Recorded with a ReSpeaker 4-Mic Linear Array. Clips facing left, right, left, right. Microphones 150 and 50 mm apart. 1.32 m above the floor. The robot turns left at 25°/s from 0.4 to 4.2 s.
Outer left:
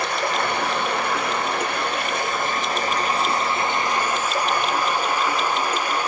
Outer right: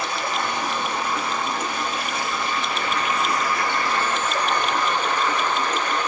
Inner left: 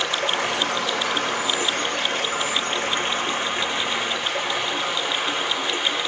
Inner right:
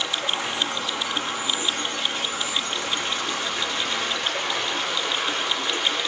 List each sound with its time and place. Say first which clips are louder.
0.0 s running water: outer left 3 dB, inner left 4 dB; 105° left, 2 m; by 6.1 s 10° left, 2 m